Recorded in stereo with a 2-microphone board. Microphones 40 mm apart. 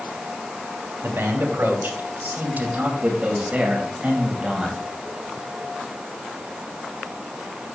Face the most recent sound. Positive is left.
turn(degrees=-15)  # may be behind; listen again after turning